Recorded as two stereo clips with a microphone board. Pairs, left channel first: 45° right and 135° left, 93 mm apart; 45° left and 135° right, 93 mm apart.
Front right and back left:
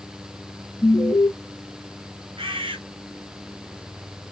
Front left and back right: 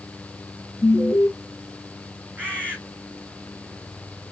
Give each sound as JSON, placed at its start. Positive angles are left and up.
{"t": 0.8, "sound": "an alarm", "azimuth_deg": 15, "distance_m": 1.3}
{"t": 2.4, "sound": "a bird", "azimuth_deg": 150, "distance_m": 2.0}